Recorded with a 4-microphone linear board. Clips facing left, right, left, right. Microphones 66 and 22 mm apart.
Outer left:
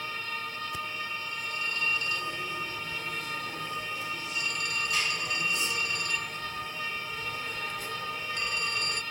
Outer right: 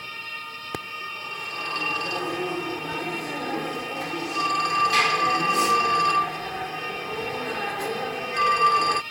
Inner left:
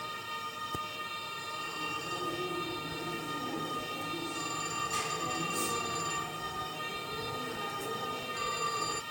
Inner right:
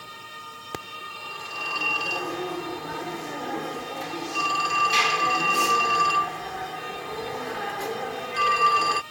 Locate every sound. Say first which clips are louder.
0.7 s a phone ringing: outer right 2 dB, inner right 2 dB; 75° right (ahead or behind)